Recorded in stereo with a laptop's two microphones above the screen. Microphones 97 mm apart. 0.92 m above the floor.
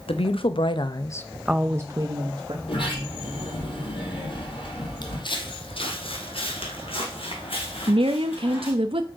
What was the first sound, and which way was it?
A woman speaking, 75° left (ahead or behind).